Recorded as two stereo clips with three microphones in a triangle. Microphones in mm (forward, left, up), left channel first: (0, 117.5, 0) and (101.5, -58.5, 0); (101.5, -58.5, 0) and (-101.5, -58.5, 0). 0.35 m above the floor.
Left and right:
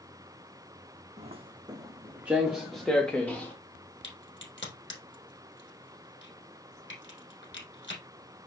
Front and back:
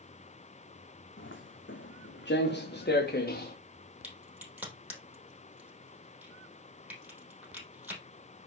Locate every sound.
1.2 s footsteps: 5° right, 1.2 m; by 3.5 s 40° left, 2 m
4.0 s a crack: 100° left, 3.5 m